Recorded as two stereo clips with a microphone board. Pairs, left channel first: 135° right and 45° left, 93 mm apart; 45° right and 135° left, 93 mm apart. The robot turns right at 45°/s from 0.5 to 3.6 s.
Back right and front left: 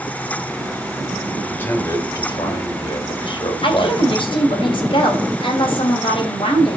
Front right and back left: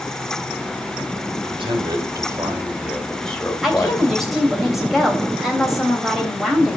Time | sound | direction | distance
1.3 | a man speaking | 140° left | 2.5 m
3.6 | a woman speaking | 140° right | 3 m